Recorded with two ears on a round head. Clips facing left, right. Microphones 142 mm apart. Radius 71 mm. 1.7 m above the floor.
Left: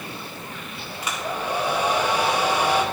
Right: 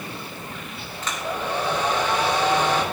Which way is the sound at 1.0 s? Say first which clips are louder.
Even; 10° left (ahead or behind).